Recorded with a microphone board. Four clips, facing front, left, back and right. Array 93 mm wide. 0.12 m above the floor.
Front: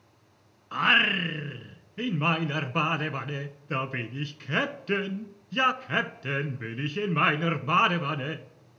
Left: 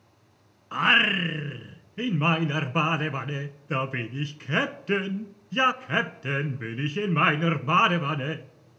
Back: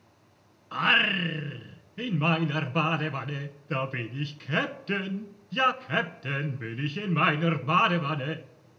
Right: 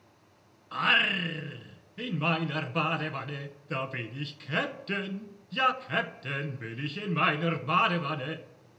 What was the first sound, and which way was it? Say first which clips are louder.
Singing: left 5 dB, front 1 dB; 80° left.